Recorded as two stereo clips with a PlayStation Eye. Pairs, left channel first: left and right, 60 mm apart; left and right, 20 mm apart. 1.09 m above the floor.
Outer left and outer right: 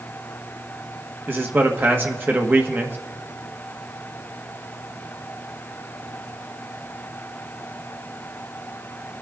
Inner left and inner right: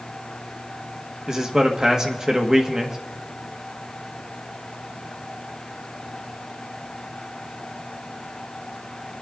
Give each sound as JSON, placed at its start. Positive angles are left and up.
{"t": 1.3, "sound": "a man speaking", "side_deg": -35, "distance_m": 1.3}